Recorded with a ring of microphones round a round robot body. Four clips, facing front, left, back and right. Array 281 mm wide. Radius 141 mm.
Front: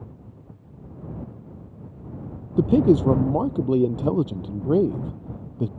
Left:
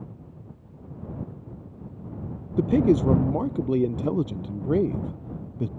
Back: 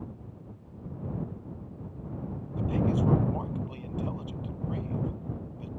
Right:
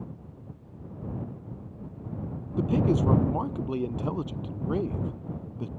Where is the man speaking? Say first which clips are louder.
Left 5 dB, front 12 dB; 25° left.